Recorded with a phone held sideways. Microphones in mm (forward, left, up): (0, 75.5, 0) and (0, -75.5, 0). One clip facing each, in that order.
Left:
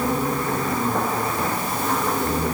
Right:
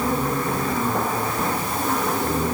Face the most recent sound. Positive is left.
No sound to turn to.